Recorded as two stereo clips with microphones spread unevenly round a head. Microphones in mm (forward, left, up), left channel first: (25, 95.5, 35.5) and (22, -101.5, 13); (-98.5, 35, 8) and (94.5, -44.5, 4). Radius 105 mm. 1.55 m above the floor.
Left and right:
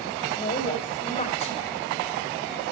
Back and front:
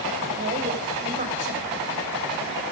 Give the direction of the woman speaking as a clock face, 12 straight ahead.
11 o'clock.